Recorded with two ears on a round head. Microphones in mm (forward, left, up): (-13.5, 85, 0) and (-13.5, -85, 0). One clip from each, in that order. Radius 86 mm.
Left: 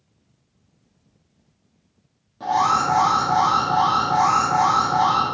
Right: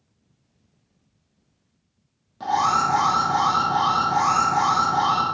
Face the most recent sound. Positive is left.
turn(degrees=-30)  # may be behind; listen again after turning